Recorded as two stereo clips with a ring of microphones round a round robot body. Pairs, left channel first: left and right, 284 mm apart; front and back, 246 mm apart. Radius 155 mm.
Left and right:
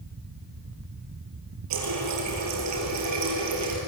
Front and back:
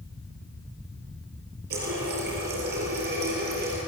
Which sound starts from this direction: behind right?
A running tap, at 1.7 s.